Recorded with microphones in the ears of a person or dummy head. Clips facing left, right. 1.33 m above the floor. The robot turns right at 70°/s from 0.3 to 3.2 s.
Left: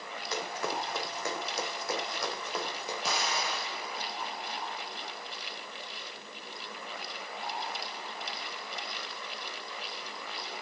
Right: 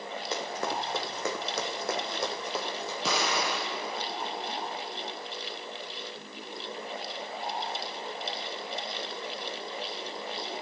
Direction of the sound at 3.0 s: 70° right (ahead or behind).